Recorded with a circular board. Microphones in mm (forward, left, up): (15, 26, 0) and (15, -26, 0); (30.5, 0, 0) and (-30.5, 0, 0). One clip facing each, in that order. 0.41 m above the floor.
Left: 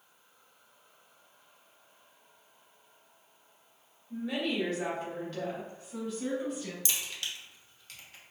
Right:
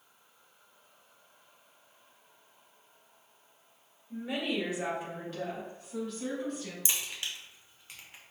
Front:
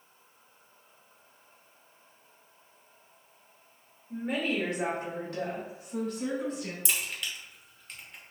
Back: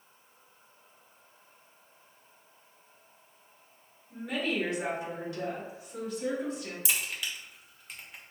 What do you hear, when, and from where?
4.1 s a woman speaking: 40° right, 1.6 m; by 6.8 s 10° left, 4 m
6.8 s a crack: 100° right, 1.1 m